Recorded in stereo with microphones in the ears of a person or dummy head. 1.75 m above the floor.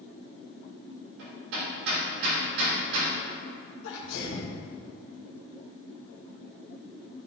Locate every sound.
1.2 s hammering: 70° right (ahead or behind), 3 m
3.8 s a sneeze: 75° left (ahead or behind), 2.5 m